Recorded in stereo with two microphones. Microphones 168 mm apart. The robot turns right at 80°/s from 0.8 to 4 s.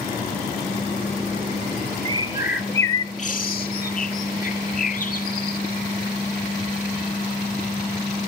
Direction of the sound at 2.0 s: 35° right (ahead or behind).